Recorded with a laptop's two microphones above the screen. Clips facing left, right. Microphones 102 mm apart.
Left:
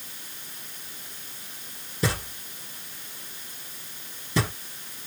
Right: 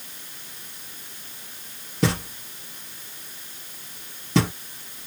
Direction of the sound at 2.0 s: 75° right (ahead or behind).